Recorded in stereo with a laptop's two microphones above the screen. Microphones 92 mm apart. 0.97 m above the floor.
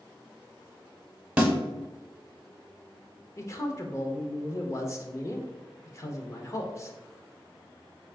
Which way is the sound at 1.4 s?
15° right (ahead or behind).